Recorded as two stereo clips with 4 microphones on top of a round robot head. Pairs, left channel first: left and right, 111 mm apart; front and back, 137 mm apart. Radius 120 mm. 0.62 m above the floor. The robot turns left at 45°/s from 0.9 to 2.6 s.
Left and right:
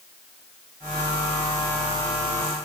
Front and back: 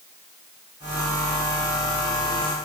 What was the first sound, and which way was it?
Only background noise.